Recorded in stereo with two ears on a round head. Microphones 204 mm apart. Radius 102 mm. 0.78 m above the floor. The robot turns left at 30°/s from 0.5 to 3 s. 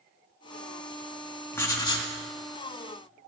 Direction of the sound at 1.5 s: 10° left (ahead or behind).